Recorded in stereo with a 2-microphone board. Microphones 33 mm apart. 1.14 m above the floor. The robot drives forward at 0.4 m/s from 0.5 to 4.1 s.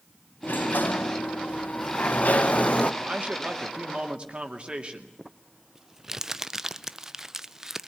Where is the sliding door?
70° left (ahead or behind), 0.9 m; by 2.9 s 40° left (ahead or behind), 1.3 m.